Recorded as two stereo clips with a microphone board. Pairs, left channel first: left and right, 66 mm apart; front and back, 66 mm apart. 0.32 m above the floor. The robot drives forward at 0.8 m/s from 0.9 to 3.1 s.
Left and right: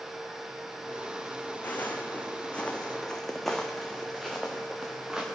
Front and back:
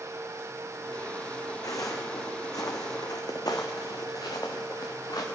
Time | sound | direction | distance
1.6 | footsteps | 25° left | 1.8 m